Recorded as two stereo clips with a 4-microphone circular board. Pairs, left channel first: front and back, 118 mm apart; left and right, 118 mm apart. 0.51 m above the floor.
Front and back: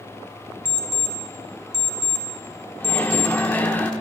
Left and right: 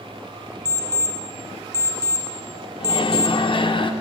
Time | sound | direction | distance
0.7 | an alarm clock | 150° right | 1.5 m
2.8 | a microwave | 70° left | 0.7 m